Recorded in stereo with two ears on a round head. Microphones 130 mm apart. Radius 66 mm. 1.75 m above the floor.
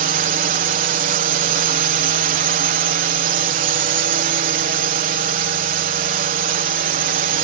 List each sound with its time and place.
0.0 s a drone: 60° right (ahead or behind)